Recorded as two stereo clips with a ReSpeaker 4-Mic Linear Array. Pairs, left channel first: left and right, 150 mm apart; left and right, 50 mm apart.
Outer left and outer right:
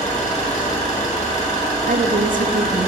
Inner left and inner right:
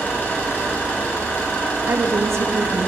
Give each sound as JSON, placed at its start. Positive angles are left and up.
{"t": 0.0, "sound": "an engine running", "side_deg": 50, "distance_m": 1.7}
{"t": 1.9, "sound": "a woman speaking", "side_deg": -70, "distance_m": 0.5}